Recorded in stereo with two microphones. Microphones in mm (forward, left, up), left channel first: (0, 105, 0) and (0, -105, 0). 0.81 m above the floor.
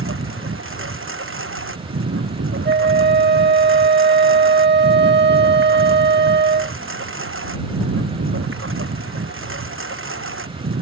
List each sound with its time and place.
0.0 s a lawn mower: 85° right
2.6 s a flute: 55° right (ahead or behind)